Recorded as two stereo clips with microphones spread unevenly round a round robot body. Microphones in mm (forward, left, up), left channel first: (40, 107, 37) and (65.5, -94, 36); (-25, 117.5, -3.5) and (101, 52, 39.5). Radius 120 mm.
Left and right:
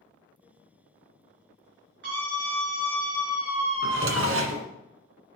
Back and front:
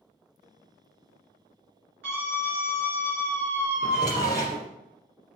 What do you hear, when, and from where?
2.0 s a scream: 55° right, 4 m
3.8 s a drawer: 90° right, 1.6 m